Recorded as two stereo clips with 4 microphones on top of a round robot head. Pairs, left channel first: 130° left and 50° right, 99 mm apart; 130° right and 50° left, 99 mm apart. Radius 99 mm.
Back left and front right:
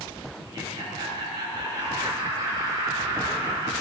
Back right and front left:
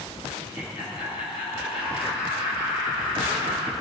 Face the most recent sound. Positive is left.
turn(degrees=-95)